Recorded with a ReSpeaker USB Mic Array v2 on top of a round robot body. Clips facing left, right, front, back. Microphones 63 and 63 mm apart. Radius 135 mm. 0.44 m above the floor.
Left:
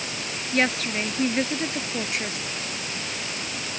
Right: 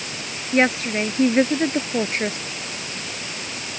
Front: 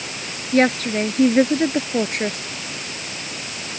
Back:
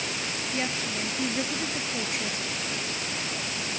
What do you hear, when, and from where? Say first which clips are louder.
0.5 s a woman speaking: right 5 dB, front 16 dB; 25° right; by 2.4 s 40° right